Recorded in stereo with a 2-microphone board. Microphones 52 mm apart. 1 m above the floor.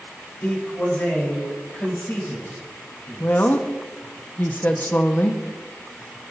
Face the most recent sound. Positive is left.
turn(degrees=40)  # may be behind; listen again after turning